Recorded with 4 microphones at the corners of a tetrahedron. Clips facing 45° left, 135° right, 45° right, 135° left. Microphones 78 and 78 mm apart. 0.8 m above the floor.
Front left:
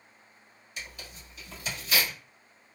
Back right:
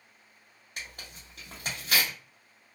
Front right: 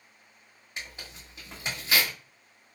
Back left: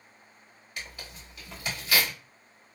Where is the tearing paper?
110° right, 1.7 m.